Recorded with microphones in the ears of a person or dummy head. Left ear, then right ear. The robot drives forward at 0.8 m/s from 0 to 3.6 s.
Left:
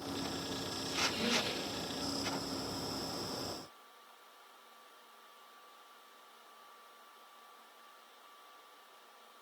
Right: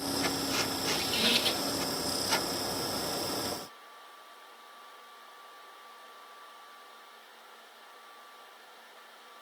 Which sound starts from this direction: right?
A squeak, at 0.9 s.